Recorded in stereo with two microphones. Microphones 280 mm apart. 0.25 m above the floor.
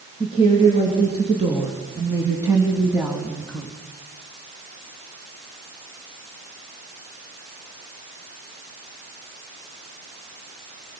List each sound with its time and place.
0.2 s a woman speaking: 20° right (ahead or behind), 4.5 m; by 3.7 s 5° left (ahead or behind), 1.7 m